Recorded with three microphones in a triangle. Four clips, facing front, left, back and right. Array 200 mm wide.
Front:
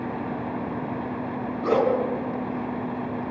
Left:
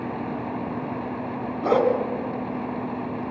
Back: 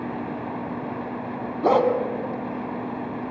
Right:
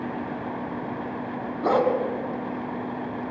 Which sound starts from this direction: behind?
A dog barking, at 1.6 s.